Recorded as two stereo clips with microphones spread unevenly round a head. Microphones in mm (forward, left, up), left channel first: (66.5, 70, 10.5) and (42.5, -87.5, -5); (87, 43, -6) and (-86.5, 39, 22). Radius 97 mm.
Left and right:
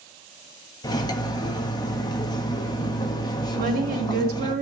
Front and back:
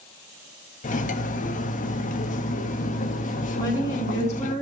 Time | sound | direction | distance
0.8 | cutlery clinking | 35° left | 1.2 m
3.5 | a woman speaking | 75° right | 3 m